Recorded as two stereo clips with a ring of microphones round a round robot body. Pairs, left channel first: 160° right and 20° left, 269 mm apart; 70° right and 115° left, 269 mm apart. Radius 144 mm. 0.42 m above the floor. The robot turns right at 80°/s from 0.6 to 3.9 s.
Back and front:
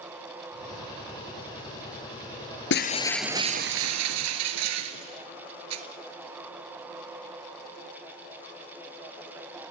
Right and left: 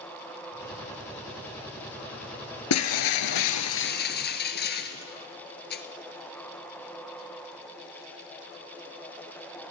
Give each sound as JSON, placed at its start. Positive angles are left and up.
{"t": 2.7, "sound": "breaking glass", "azimuth_deg": -110, "distance_m": 1.3}